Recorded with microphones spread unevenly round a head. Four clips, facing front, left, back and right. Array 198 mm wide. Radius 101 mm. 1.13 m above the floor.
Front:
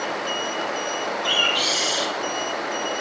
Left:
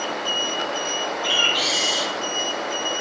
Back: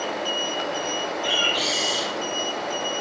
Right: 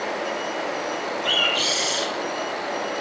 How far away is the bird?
About 3 m.